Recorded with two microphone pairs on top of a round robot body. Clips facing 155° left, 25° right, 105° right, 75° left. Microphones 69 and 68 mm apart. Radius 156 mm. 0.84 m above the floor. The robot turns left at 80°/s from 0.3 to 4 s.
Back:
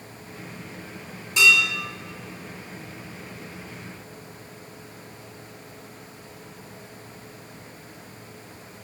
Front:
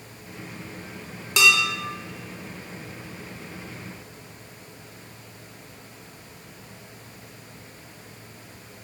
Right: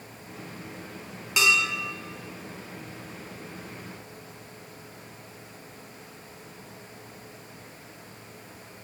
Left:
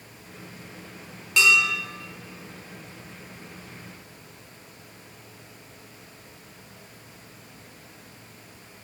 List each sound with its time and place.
1.4 s dishes clattering: 25° right, 0.6 m; by 1.8 s 55° right, 0.6 m